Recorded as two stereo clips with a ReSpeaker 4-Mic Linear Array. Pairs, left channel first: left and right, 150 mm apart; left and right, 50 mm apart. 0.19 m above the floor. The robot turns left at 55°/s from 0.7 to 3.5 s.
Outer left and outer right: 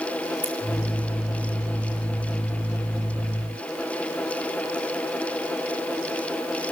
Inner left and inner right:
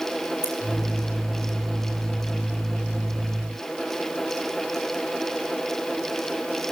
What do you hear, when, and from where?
0.4 s scissors: 65° left (ahead or behind), 3 m